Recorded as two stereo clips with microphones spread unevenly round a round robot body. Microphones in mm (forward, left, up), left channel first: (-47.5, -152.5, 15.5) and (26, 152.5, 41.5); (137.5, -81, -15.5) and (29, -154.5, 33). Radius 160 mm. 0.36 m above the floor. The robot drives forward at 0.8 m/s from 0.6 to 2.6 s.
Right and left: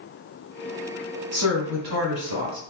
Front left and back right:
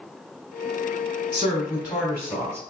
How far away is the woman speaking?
About 2.5 m.